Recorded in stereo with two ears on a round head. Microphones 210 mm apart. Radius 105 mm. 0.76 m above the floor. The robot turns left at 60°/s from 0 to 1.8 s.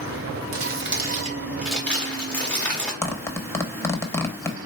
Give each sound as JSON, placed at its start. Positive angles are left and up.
{"t": 0.5, "sound": "crumpling", "azimuth_deg": -110, "distance_m": 1.5}
{"t": 3.0, "sound": "a zipper", "side_deg": 10, "distance_m": 0.6}